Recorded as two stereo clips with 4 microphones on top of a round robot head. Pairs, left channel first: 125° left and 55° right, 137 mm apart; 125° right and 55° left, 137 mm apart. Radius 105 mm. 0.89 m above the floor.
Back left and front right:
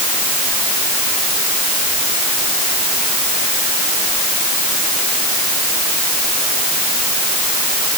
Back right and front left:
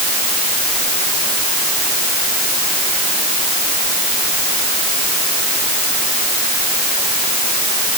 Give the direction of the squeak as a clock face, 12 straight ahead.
I don't hear a squeak.